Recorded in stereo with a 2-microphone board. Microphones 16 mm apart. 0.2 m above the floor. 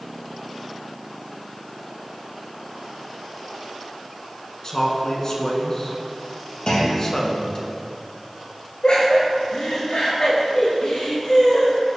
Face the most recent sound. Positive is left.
turn(degrees=55)  # may be behind; listen again after turning